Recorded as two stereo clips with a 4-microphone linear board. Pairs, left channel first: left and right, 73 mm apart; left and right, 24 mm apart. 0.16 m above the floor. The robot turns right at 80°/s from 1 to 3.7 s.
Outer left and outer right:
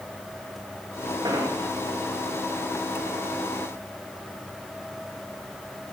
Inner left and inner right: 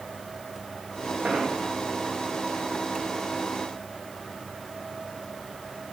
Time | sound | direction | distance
1.2 | an explosion | 85° right | 9 m